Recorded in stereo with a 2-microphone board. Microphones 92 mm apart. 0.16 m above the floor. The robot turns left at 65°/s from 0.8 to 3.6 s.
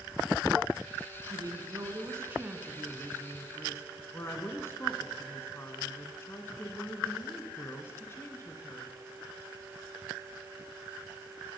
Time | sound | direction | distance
1.3 | a woman speaking | 75° right | 1.5 m